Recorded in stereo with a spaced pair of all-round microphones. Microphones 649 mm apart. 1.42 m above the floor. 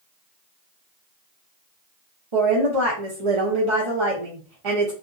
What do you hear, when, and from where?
2.3 s a woman speaking: 50° right (ahead or behind), 0.7 m